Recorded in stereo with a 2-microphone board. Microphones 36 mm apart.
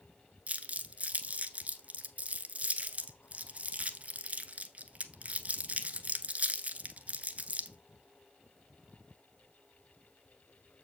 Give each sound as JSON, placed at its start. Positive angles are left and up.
{"t": 0.5, "sound": "crumpling", "side_deg": -45, "distance_m": 1.0}